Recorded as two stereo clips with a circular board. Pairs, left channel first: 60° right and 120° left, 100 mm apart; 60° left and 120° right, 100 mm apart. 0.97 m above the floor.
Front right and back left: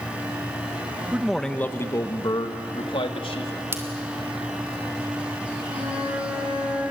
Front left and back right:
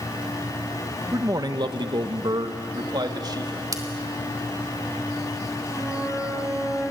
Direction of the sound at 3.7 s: 175° right.